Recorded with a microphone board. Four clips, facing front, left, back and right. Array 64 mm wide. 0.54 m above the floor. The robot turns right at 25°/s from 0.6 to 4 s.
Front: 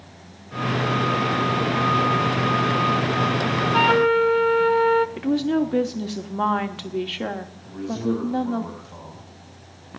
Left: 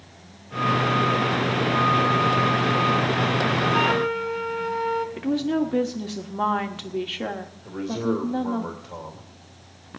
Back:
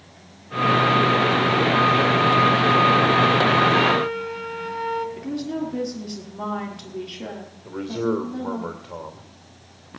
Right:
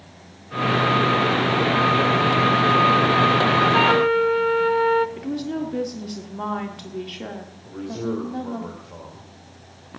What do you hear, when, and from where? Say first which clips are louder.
3.7 s a flute: right 5 dB, front 3 dB; 50° right, 0.6 m; by 5.1 s 45° right, 0.6 m
5.2 s a woman speaking: left 4 dB, front 6 dB; 30° left, 1.5 m
7.7 s a man speaking: left 2 dB, back 1 dB; 165° left, 2.5 m